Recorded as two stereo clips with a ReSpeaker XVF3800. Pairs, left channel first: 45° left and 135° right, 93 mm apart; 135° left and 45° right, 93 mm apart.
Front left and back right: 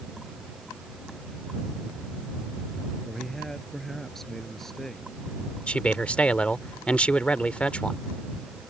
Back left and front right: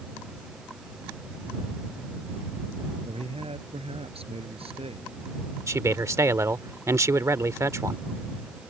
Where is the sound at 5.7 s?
25° right.